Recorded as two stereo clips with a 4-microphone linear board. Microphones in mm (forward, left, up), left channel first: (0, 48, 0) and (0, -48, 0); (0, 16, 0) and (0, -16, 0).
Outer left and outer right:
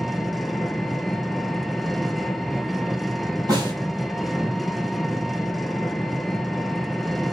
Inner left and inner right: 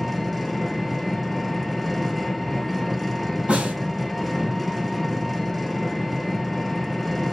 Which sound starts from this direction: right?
A snare drum, at 3.5 s.